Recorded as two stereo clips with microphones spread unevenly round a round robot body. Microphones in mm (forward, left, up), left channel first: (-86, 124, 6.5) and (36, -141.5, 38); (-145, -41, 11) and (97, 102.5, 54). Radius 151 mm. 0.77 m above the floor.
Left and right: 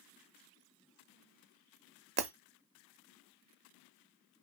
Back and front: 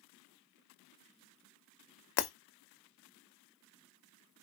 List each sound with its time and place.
2.2 s breaking glass: 130° right, 0.5 m